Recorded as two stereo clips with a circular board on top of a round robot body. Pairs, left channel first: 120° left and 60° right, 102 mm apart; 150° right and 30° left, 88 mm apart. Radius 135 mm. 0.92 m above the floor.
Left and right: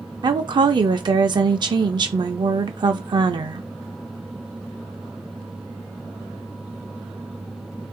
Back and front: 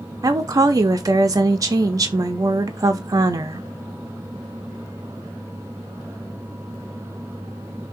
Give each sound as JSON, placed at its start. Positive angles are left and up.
{"t": 0.2, "sound": "a woman speaking", "azimuth_deg": -20, "distance_m": 0.6}